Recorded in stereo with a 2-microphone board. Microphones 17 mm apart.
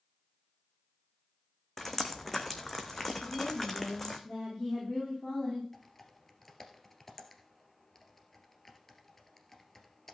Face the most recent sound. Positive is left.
turn(degrees=15)  # may be behind; listen again after turning